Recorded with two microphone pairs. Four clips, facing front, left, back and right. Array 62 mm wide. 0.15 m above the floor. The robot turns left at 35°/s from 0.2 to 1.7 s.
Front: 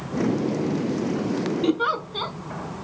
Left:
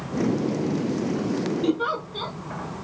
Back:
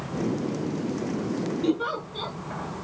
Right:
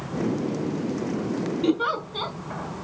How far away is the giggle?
About 0.5 m.